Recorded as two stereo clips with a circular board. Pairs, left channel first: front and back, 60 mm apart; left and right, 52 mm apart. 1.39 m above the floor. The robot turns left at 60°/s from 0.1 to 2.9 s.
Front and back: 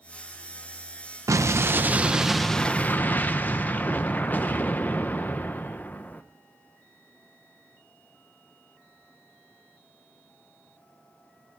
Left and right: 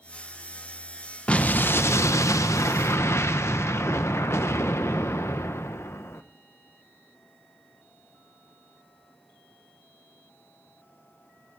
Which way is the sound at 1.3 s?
155° left.